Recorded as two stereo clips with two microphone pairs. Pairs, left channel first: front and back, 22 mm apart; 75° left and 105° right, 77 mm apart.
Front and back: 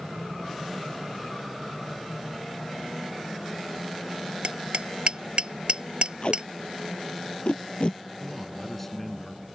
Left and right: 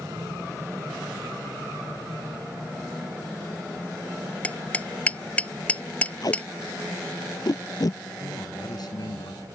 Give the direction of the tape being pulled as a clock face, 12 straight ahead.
11 o'clock.